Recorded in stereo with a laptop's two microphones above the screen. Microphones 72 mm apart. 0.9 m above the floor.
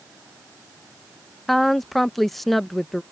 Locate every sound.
1.5 s a woman speaking: centre (ahead or behind)